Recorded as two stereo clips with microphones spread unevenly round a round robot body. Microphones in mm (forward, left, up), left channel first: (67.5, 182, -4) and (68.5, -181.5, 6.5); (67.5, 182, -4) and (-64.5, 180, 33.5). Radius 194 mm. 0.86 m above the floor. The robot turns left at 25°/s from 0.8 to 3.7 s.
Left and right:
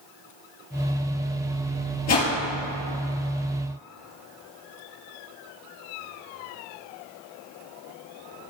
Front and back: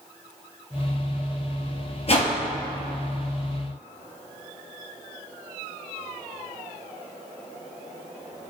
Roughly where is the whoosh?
Ahead left.